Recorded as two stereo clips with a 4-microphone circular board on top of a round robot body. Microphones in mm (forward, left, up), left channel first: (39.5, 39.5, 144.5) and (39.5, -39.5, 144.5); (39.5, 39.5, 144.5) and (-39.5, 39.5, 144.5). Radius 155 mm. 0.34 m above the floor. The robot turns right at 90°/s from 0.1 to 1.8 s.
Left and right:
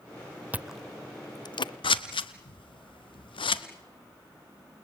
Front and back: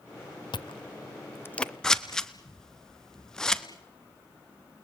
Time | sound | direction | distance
0.5 | chewing | 20° right | 0.8 m
1.8 | scissors | 80° left | 1.3 m